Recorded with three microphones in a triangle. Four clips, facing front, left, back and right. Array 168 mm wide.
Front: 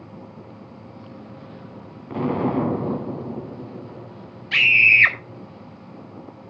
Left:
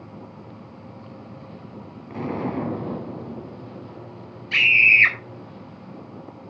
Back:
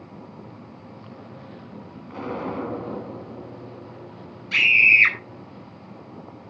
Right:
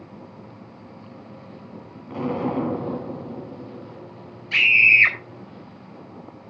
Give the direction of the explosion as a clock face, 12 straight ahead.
12 o'clock.